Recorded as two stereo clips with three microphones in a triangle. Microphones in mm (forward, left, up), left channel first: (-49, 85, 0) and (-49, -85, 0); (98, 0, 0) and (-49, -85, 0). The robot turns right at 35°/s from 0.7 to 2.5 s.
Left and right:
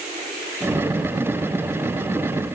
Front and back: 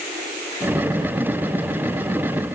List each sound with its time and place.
Only background noise.